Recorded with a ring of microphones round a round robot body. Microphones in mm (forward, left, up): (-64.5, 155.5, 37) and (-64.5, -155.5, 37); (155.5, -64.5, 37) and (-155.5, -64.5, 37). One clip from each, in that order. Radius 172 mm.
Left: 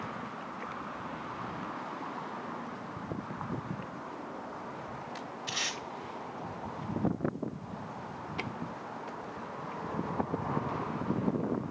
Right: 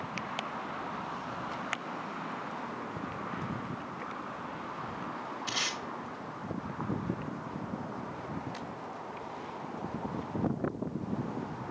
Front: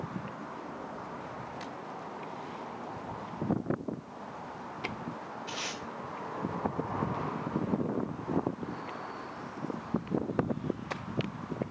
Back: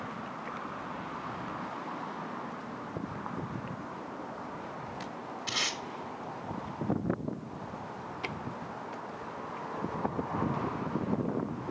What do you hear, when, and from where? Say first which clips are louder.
5.5 s tape being pulled: right 1 dB, back 7 dB; 160° right, 1.6 m